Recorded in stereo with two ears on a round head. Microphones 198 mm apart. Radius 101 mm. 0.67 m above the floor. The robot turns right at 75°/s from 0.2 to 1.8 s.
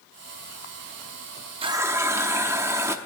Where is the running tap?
25° right (ahead or behind), 0.6 m; by 3.0 s 10° right (ahead or behind), 0.6 m.